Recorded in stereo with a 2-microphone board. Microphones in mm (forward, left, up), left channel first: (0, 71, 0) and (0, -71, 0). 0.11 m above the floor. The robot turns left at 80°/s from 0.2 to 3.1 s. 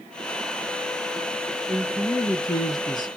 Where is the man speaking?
Straight behind, 1.6 m; by 3.1 s 70° left, 1.6 m.